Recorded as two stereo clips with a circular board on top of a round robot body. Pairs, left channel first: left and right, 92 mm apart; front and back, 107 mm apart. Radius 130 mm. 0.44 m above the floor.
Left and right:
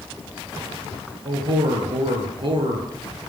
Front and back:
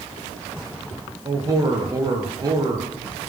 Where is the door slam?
I don't hear a door slam.